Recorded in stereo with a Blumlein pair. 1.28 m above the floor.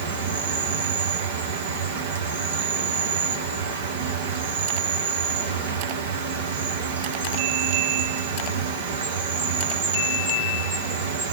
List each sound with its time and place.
0.0 s an insect: 55° right, 1.0 m